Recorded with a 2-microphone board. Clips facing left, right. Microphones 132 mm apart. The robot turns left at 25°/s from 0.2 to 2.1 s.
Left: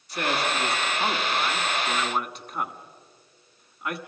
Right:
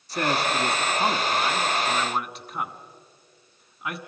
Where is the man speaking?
35° right (ahead or behind), 1.4 m; by 4.0 s centre (ahead or behind), 1.4 m.